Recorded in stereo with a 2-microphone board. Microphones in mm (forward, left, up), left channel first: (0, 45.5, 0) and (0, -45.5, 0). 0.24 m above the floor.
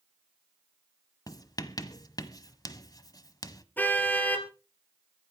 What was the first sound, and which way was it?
Writing, 40° left (ahead or behind).